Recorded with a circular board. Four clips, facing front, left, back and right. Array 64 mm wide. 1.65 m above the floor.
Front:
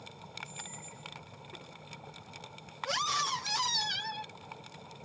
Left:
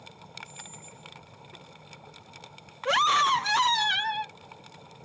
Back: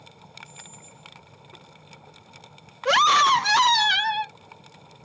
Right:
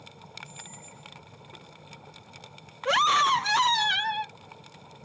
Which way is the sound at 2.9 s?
Straight behind.